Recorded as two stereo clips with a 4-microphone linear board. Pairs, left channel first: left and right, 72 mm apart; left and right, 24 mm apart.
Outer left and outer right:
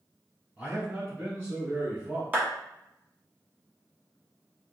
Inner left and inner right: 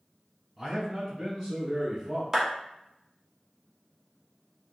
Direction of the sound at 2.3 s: 25° right (ahead or behind).